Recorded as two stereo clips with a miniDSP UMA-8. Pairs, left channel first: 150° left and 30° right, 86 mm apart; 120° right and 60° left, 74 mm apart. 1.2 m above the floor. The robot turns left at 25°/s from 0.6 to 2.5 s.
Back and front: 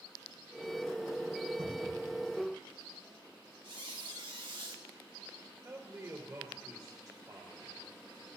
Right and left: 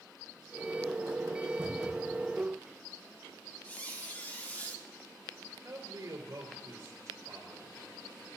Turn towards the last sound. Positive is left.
turn(degrees=15)